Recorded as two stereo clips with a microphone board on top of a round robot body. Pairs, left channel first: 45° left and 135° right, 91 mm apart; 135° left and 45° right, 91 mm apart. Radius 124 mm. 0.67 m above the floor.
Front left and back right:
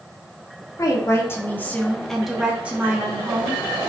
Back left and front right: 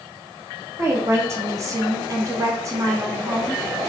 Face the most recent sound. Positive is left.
turn(degrees=-100)